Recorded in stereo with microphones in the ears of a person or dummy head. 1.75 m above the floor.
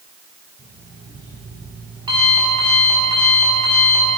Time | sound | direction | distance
0.6 | an alarm clock | 25° right (ahead or behind) | 6 m